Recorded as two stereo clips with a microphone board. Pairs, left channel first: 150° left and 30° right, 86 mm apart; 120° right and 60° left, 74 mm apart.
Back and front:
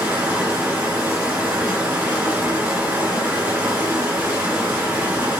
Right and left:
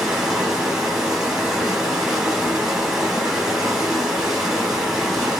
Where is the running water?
5° right, 1.2 m.